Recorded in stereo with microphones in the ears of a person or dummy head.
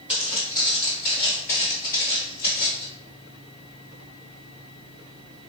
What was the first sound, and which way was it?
Footsteps, 5° right (ahead or behind).